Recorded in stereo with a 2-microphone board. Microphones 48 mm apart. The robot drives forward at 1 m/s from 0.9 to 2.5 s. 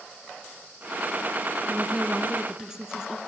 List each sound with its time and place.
1.7 s a woman speaking: 15° right (ahead or behind), 1.1 m; by 3.2 s 10° right (ahead or behind), 1.5 m